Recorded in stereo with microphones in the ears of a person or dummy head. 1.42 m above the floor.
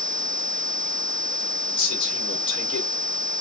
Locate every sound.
1.7 s a man speaking: 35° left (ahead or behind), 2.5 m